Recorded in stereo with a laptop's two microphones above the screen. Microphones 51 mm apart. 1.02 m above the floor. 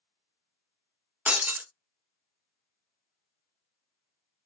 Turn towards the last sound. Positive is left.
turn(degrees=-30)  # may be behind; listen again after turning